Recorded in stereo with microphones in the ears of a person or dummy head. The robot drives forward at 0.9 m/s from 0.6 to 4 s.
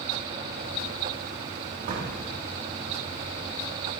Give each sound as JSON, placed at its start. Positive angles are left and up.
{"t": 1.9, "sound": "a door slam", "side_deg": -40, "distance_m": 3.0}